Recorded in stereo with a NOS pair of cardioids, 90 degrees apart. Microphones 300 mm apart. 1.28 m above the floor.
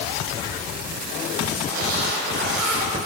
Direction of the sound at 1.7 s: 30° right.